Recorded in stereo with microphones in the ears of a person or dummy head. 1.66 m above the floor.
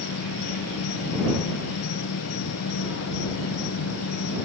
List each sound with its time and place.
0.0 s an insect: 80° left